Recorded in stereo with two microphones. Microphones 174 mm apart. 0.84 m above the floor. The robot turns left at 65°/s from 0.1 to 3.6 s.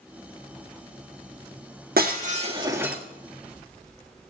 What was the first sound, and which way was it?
Breaking glass, 110° right.